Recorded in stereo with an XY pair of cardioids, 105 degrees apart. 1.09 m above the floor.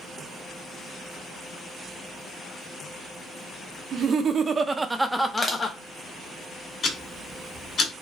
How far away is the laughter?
About 0.8 m.